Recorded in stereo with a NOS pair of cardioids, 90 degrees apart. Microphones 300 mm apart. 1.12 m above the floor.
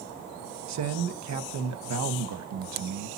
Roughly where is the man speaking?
Ahead right.